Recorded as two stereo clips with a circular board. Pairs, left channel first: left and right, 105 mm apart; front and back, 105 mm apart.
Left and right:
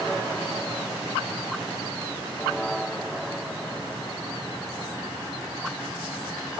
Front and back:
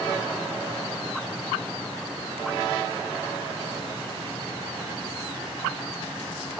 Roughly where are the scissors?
I don't hear scissors.